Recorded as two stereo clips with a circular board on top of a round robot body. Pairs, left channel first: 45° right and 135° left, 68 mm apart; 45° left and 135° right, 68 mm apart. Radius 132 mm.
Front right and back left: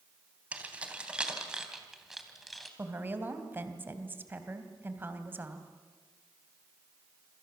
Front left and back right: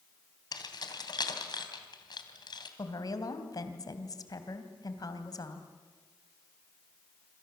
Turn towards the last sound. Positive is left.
turn(degrees=75)